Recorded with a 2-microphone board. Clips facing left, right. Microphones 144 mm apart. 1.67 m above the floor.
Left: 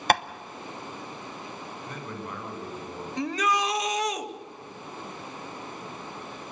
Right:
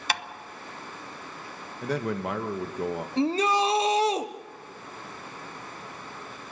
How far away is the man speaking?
About 2.0 m.